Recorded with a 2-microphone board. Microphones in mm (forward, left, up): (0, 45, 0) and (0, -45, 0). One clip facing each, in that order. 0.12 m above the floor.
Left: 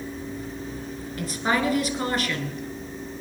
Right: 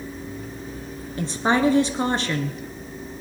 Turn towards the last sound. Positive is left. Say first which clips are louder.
# right 4 dB
turn(degrees=-30)  # may be behind; listen again after turning